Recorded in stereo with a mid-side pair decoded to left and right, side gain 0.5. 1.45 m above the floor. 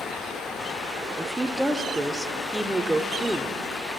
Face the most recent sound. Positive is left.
turn(degrees=-5)